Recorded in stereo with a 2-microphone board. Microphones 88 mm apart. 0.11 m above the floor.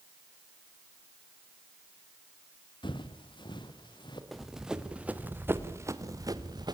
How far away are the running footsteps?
About 2.5 m.